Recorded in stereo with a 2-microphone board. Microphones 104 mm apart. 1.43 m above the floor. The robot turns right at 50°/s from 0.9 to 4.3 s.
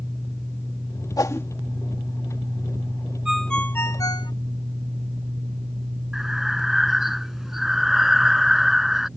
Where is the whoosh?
35° left (ahead or behind); by 1.5 s 20° left (ahead or behind).